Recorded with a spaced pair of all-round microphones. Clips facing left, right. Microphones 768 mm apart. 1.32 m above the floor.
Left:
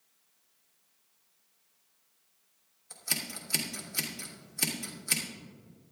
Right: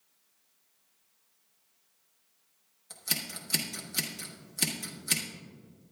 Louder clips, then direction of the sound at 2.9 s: Even; 65° right (ahead or behind).